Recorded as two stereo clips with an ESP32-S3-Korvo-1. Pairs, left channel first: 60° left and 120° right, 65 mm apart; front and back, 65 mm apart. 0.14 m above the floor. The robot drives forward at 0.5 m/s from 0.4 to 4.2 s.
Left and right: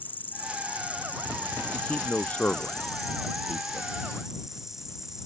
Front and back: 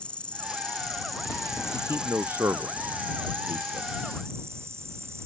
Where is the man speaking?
125° left; by 3.9 s 135° left.